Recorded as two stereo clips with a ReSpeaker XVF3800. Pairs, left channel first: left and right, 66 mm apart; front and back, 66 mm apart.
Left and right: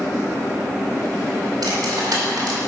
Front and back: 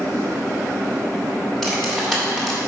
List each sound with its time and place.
1.6 s cutlery clinking: 85° right, 2 m